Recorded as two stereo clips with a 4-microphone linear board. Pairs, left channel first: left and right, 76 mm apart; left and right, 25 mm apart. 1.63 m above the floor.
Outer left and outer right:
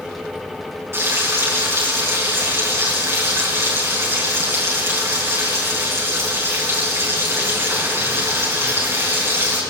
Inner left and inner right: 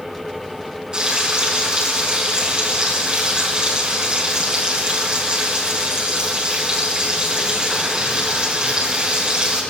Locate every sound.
0.9 s frying: 35° right (ahead or behind), 4.5 m